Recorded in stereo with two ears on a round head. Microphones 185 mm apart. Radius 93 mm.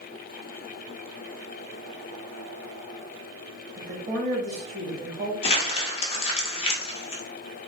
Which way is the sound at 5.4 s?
30° left (ahead or behind).